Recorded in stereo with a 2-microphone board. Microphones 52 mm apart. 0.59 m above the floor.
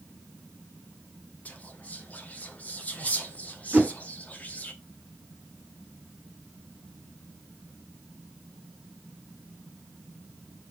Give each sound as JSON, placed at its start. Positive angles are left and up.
{"t": 1.4, "sound": "whispering", "side_deg": 30, "distance_m": 0.8}
{"t": 3.7, "sound": "a whoosh", "side_deg": -20, "distance_m": 1.3}